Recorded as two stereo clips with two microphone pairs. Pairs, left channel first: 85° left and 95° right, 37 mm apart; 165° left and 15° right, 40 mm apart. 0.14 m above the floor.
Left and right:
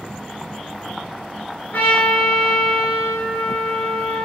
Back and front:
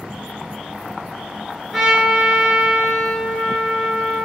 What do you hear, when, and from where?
1.7 s a trumpet: 75° left, 1.0 m